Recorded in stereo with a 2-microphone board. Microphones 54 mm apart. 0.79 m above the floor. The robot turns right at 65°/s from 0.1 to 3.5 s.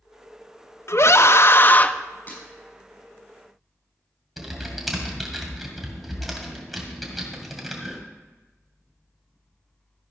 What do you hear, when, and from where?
0.9 s a scream: 80° left, 0.6 m; by 1.9 s 145° left, 0.6 m
2.3 s breaking glass: 25° left (ahead or behind), 5 m; by 2.4 s 35° left (ahead or behind), 5 m
4.4 s typing on a keyboard: centre (ahead or behind), 2 m